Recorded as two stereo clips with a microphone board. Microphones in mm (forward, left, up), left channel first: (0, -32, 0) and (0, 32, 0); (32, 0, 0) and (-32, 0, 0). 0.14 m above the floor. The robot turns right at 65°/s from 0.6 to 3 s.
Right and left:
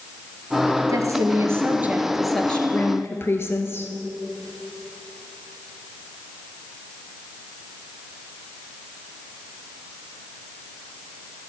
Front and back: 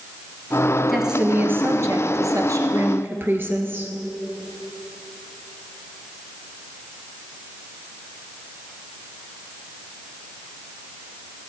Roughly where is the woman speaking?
Left.